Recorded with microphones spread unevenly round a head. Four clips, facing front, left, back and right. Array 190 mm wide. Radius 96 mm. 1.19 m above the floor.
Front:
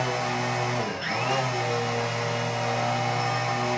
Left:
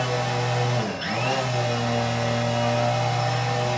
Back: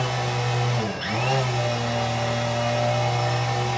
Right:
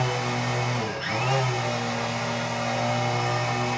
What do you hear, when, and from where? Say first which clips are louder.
0.0 s a machine running: left 2 dB, back 1 dB; 140° left, 2.5 m